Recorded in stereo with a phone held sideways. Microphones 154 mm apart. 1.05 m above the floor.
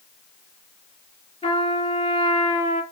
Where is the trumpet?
40° left (ahead or behind), 3 m.